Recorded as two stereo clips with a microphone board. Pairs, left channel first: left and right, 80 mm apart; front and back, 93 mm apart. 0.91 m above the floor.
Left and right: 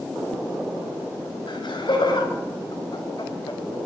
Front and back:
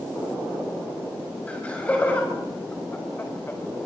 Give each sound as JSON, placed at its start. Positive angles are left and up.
{"t": 1.5, "sound": "laughter", "azimuth_deg": 75, "distance_m": 6.0}